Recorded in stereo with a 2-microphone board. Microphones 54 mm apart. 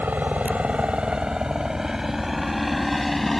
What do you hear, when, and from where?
0.0 s a helicopter: 30° right (ahead or behind); by 3.4 s 5° left (ahead or behind)